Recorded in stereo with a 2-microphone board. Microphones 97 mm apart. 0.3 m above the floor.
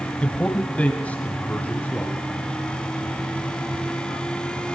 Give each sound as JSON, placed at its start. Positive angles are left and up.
{"t": 0.2, "sound": "a man speaking", "side_deg": 15, "distance_m": 1.3}